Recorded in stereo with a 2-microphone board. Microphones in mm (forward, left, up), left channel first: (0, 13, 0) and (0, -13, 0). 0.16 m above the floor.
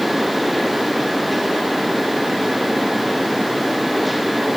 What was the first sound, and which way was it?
Only background noise.